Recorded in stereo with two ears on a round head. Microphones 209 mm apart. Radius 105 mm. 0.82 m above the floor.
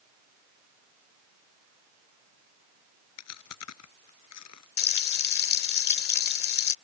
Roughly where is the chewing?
Left.